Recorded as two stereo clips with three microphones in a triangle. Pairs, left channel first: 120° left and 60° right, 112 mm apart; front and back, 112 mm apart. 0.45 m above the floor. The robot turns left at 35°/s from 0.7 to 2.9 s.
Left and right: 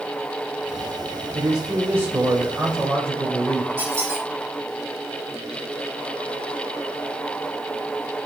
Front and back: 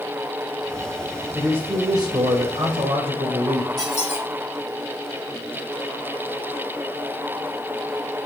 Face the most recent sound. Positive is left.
turn(degrees=10)